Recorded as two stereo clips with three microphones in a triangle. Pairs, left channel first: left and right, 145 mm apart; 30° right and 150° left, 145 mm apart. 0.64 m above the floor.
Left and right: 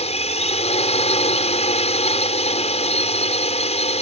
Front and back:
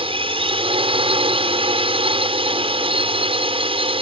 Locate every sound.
0.0 s a drone: 115° left